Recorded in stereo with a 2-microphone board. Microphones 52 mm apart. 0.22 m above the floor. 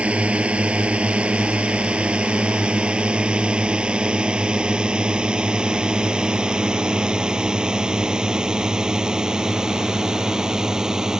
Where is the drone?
25° right (ahead or behind); by 11.2 s 10° right (ahead or behind).